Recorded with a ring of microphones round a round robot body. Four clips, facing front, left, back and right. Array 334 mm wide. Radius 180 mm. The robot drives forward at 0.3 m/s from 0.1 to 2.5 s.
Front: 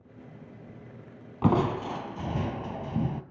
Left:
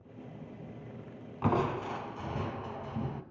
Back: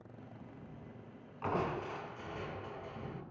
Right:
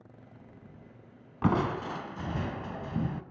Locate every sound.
1.4 s crushing: 25° right, 1.5 m; by 3.2 s 30° right, 1.2 m